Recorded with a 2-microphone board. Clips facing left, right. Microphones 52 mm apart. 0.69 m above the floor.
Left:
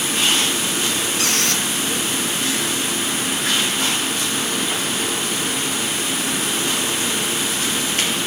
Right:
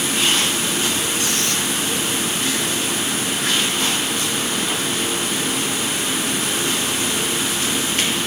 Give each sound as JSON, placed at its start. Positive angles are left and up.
{"t": 1.2, "sound": "a squeak", "side_deg": 80, "distance_m": 3.0}